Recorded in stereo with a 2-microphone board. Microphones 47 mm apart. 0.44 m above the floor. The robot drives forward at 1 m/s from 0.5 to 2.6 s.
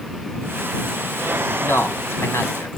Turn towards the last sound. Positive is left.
turn(degrees=70)  # may be behind; listen again after turning